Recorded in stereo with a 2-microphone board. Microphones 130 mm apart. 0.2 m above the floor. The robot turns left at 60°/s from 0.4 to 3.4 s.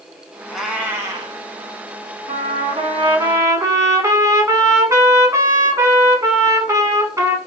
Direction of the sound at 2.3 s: 80° right.